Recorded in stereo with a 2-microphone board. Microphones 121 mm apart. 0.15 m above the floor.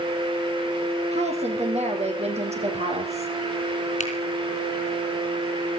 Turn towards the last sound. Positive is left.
turn(degrees=65)  # may be behind; listen again after turning